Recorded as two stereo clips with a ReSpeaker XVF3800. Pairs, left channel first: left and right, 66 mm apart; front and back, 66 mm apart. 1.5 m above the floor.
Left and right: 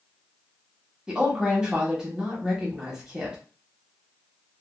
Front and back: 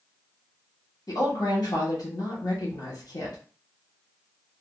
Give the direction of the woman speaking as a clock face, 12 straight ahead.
12 o'clock.